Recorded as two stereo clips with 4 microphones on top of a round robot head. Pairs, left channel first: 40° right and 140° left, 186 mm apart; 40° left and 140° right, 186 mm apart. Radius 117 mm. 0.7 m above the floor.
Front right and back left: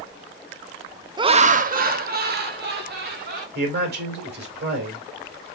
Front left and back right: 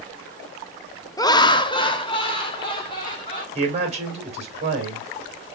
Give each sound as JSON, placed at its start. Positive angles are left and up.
{"t": 1.2, "sound": "laughter", "azimuth_deg": 95, "distance_m": 0.5}
{"t": 3.5, "sound": "a man speaking", "azimuth_deg": 170, "distance_m": 2.5}